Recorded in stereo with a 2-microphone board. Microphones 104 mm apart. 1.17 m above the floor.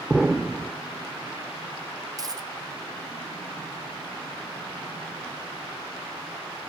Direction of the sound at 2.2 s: 35° right (ahead or behind).